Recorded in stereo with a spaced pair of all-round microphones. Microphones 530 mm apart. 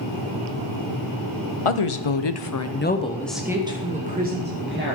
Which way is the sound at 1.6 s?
70° left (ahead or behind).